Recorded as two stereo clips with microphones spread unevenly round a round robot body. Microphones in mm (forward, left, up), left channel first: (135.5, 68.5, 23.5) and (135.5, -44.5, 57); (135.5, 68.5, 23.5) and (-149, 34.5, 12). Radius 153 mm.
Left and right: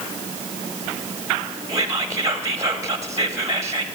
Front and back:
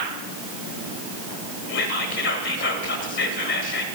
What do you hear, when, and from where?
1.7 s whispering: 20° right, 1.0 m